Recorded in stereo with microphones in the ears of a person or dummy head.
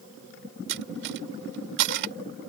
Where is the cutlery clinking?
60° right (ahead or behind).